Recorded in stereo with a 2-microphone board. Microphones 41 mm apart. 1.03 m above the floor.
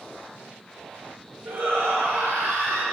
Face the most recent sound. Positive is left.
turn(degrees=-80)